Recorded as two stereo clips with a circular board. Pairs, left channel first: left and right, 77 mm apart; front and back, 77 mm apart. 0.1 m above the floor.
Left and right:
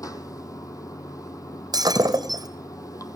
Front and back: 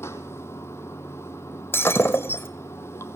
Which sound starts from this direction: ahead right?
Breaking glass, at 1.7 s.